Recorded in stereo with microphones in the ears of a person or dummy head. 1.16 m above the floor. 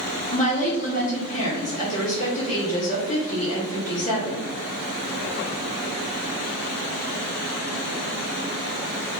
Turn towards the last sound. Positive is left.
turn(degrees=40)  # may be behind; listen again after turning